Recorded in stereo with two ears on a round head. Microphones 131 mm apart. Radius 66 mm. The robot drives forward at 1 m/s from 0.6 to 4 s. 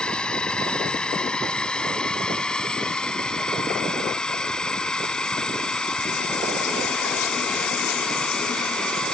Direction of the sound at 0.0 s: 5° left (ahead or behind).